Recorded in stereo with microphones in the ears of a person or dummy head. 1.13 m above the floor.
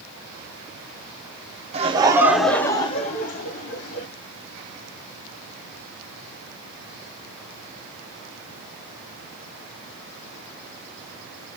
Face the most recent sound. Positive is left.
turn(degrees=60)  # may be behind; listen again after turning